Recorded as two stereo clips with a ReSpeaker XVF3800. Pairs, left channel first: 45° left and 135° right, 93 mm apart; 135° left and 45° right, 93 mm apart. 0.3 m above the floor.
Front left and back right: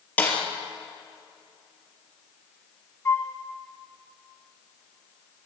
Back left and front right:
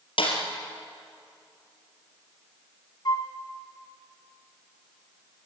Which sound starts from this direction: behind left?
A snare drum, at 0.2 s.